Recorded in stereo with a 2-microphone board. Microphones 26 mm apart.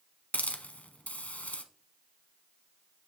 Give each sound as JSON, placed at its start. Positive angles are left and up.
{"t": 0.3, "sound": "a hiss", "side_deg": 75, "distance_m": 0.7}